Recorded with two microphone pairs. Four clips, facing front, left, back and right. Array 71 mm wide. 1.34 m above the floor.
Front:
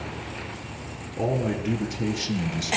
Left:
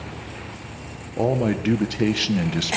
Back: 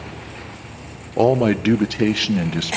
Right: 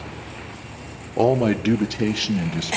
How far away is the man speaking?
About 1.1 m.